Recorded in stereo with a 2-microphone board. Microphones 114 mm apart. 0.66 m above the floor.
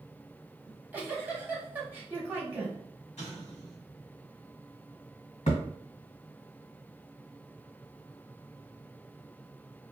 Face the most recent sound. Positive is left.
turn(degrees=80)